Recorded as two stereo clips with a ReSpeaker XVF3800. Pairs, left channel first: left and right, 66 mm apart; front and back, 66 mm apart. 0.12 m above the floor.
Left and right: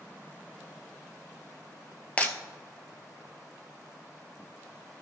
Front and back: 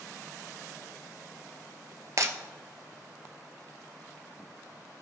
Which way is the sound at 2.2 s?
155° left.